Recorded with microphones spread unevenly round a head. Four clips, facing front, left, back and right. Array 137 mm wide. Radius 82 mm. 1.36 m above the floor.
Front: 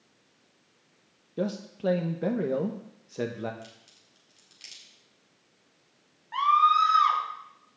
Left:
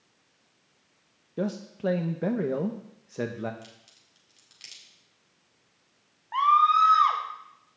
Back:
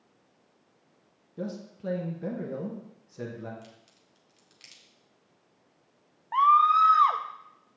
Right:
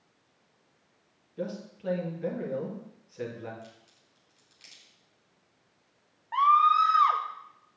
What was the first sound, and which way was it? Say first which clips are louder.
A man speaking: left 6 dB, front 6 dB; 50° left.